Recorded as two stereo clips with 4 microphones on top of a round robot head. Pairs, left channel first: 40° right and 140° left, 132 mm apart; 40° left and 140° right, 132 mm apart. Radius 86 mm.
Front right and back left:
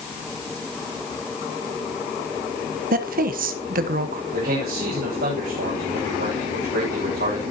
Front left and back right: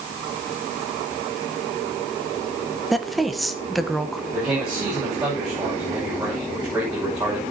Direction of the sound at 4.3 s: 140° left.